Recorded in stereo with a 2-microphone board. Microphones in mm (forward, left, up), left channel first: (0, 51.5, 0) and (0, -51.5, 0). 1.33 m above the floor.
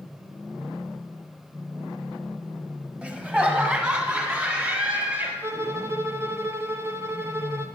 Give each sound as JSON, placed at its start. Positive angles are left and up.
{"t": 3.0, "sound": "laughter", "side_deg": -10, "distance_m": 1.3}
{"t": 5.4, "sound": "a violin", "side_deg": -25, "distance_m": 0.7}